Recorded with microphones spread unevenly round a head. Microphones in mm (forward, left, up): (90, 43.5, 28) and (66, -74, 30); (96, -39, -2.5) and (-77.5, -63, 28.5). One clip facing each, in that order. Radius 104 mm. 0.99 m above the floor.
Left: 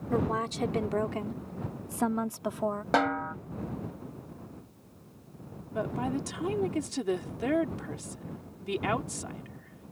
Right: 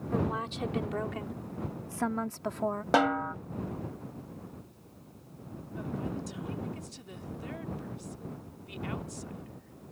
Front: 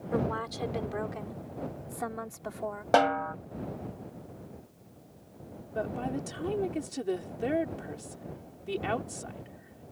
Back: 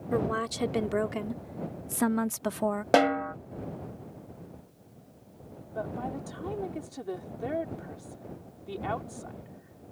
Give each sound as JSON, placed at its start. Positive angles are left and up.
{"t": 0.1, "sound": "a woman speaking", "azimuth_deg": 135}
{"t": 2.9, "sound": "a snare drum", "azimuth_deg": 180}
{"t": 5.8, "sound": "a woman speaking", "azimuth_deg": 75}